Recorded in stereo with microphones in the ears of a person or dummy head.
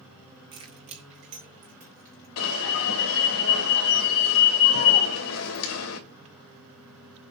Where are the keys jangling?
25° right (ahead or behind), 1.5 m; by 2.3 s 50° right (ahead or behind), 3 m.